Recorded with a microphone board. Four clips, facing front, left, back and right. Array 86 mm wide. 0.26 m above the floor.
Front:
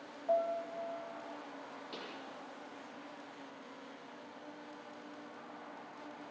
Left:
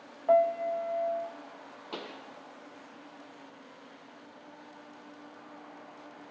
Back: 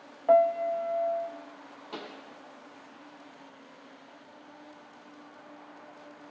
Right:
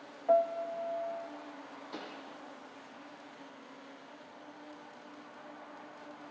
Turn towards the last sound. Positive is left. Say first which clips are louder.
# left 4 dB, back 8 dB
turn(degrees=105)